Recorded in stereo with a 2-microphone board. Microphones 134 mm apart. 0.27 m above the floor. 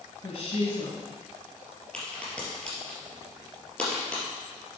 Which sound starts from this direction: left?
A woman speaking, at 0.2 s.